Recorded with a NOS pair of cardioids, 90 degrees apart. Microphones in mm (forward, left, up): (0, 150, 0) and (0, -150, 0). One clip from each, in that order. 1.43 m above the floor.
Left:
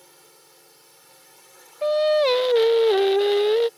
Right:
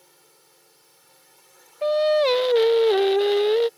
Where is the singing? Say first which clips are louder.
Even; 5° left.